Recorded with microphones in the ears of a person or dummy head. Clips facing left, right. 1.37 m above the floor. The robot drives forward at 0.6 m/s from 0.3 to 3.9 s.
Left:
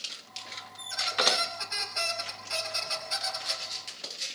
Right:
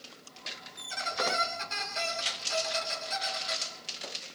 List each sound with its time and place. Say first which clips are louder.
0.8 s a squeak: left 1 dB; 40° right (ahead or behind), 6 m; by 3.6 s 35° right (ahead or behind), 7 m